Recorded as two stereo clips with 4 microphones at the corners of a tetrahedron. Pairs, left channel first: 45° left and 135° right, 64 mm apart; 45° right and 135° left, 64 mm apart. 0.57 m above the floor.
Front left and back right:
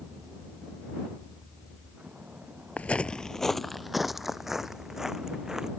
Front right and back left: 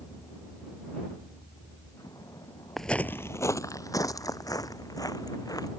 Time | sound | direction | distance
0.0 | a vehicle | 65° right | ?
2.8 | footsteps | 40° left | ?